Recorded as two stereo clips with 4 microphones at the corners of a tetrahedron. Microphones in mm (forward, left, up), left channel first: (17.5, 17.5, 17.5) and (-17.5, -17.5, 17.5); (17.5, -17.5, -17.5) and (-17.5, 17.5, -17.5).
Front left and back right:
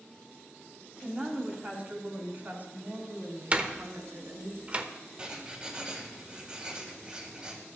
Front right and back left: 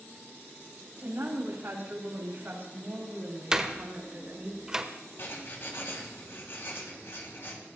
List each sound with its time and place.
1.0 s a woman speaking: 160° left, 4 m; by 4.5 s 165° right, 5.5 m
3.5 s a door slam: 160° right, 1.0 m
5.2 s writing: 70° right, 2.5 m